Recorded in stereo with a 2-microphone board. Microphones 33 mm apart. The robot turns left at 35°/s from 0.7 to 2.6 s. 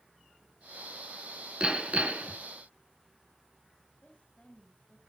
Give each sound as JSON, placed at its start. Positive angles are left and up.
{"t": 1.6, "sound": "hammering", "side_deg": -30, "distance_m": 2.0}
{"t": 4.0, "sound": "a woman speaking", "side_deg": 30, "distance_m": 3.0}